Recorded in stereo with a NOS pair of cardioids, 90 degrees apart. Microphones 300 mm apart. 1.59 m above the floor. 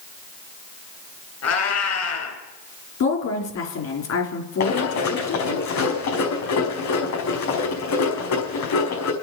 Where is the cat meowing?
65° left, 5 m.